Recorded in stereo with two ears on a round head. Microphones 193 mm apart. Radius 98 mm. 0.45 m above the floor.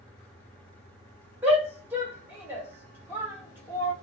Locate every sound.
1.4 s a shout: 10° right (ahead or behind), 1.1 m